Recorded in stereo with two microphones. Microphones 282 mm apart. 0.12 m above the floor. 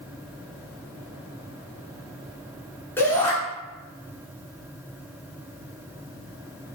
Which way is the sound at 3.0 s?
10° left (ahead or behind).